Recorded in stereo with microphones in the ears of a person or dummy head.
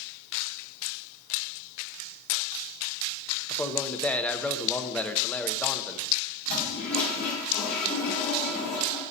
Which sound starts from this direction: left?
A toilet flushing, at 6.5 s.